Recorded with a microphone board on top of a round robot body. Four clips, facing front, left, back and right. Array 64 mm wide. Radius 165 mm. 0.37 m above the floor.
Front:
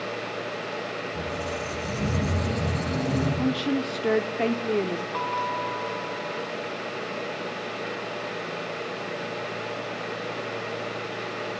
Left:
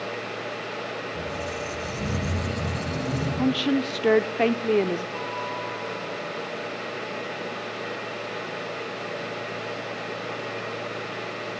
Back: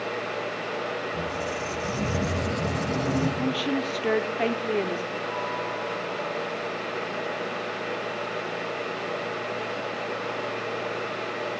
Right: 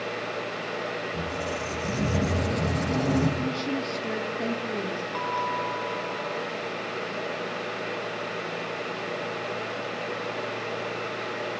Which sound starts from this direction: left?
A woman speaking, at 3.4 s.